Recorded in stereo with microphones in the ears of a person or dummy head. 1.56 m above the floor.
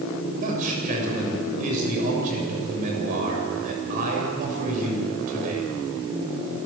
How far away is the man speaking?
About 7.5 m.